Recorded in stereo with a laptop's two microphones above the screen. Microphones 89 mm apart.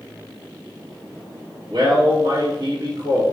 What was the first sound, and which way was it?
A man speaking, 65° right (ahead or behind).